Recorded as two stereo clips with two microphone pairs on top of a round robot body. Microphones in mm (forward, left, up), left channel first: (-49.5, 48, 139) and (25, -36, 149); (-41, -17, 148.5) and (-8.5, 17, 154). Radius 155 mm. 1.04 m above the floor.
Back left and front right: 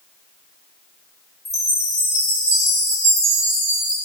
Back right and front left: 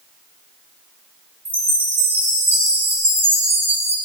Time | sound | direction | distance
1.4 | a chime | 75° left | 3 m